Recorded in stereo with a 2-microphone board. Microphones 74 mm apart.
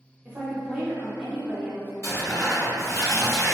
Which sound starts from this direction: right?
A woman speaking, at 0.2 s.